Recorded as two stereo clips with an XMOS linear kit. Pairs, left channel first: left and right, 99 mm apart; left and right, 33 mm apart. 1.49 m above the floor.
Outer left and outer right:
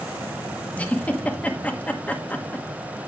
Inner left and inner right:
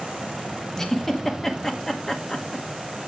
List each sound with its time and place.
0.8 s a giggle: 15° left (ahead or behind), 1.2 m